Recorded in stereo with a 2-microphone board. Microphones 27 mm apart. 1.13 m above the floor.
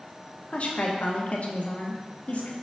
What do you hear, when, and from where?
0.5 s a woman speaking: 55° left (ahead or behind), 1.1 m